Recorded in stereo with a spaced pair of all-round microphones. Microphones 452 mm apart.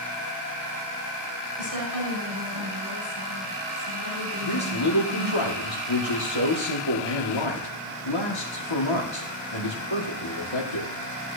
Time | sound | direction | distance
1.6 | a woman speaking | 45° right (ahead or behind) | 6 m
4.4 | a man speaking | 75° left (ahead or behind) | 2.5 m